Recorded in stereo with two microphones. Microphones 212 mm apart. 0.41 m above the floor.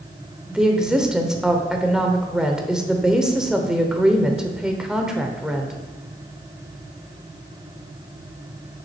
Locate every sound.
0.5 s a woman speaking: 5° right (ahead or behind), 0.9 m